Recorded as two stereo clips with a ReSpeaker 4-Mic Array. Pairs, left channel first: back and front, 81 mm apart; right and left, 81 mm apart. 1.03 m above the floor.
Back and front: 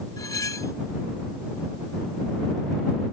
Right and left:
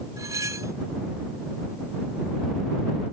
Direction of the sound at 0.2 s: 135° left.